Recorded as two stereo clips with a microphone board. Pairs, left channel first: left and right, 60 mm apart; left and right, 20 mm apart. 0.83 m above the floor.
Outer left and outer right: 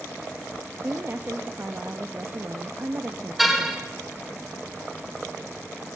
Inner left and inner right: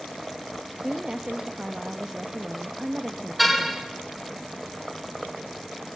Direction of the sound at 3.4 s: Centre (ahead or behind).